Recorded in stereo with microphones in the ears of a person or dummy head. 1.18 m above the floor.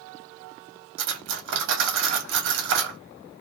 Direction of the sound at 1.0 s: 65° right (ahead or behind).